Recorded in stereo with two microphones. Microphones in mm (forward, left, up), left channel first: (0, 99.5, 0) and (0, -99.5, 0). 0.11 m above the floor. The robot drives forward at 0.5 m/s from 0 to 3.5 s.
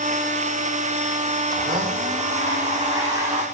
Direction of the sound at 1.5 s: 20° right (ahead or behind).